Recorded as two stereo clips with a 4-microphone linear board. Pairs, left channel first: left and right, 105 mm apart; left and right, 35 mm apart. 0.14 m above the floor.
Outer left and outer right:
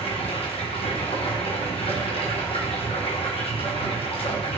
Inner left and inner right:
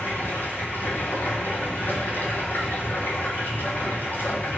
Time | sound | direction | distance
0.0 | running water | 70° left (ahead or behind) | 0.8 m